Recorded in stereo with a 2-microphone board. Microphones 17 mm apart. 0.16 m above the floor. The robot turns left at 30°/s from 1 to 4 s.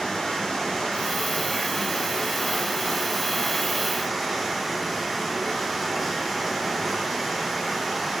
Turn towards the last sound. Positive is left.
turn(degrees=-5)